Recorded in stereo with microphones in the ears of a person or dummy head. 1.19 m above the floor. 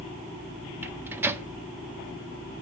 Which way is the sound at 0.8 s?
15° right (ahead or behind).